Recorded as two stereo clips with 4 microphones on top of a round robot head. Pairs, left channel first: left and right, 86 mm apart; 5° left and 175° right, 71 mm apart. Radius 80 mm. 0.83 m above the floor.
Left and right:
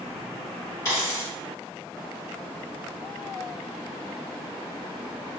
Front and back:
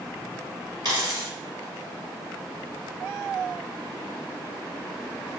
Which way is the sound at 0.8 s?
155° left.